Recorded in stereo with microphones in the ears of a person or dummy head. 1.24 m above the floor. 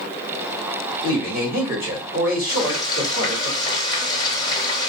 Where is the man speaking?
60° left (ahead or behind), 2.0 m.